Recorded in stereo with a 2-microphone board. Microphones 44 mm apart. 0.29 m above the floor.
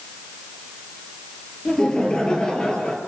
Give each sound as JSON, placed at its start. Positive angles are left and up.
{"t": 1.6, "sound": "laughter", "side_deg": 15, "distance_m": 5.0}